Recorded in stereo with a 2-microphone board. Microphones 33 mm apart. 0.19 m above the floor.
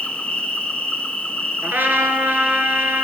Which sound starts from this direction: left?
An insect, at 0.0 s.